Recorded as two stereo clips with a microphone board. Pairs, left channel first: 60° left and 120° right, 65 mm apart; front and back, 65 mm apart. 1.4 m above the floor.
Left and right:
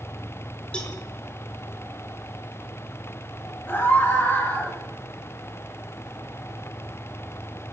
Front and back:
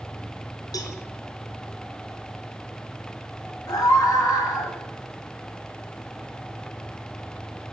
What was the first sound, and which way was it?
A cowbell, 15° right.